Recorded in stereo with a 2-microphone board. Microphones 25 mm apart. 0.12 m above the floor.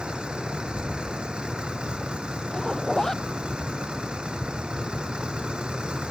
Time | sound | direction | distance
0.0 | a vehicle | 40° right (ahead or behind) | ?
2.5 | a zipper | 25° left (ahead or behind) | ?